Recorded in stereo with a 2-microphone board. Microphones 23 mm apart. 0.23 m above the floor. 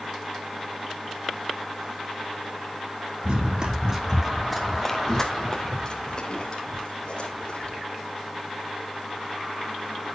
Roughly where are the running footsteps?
Right.